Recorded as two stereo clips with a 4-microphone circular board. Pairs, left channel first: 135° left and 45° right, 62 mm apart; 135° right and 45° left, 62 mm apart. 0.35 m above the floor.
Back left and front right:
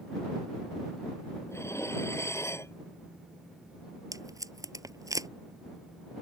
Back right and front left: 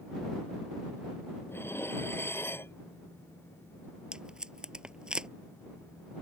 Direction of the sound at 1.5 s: 175° left.